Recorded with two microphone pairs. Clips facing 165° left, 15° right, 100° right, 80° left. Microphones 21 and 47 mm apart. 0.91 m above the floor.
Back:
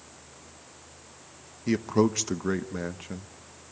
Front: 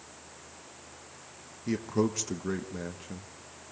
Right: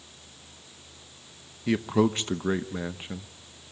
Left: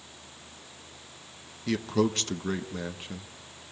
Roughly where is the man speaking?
Behind right.